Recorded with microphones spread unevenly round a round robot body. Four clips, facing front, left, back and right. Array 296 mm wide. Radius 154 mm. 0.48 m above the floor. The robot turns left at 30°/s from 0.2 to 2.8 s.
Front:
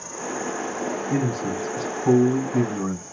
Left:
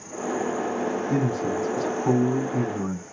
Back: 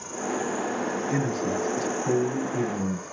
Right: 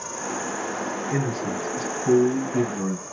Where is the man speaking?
60° left, 4 m; by 3.0 s 5° left, 4 m.